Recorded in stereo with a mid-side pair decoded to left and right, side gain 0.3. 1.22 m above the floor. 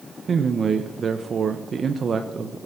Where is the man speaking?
60° right, 0.9 m.